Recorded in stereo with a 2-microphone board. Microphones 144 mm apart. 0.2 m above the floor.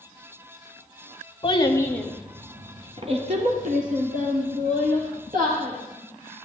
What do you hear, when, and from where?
1.4 s a child speaking: 35° left (ahead or behind), 0.8 m; by 5.7 s 75° right (ahead or behind), 2.5 m